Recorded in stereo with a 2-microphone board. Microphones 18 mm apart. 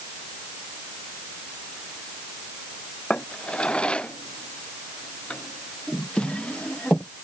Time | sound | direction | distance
3.1 | a drawer | 80° left | ?